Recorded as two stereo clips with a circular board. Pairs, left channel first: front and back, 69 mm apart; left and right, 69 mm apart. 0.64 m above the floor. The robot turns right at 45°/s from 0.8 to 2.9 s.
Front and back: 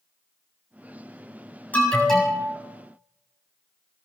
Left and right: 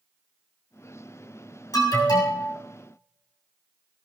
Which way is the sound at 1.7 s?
65° left.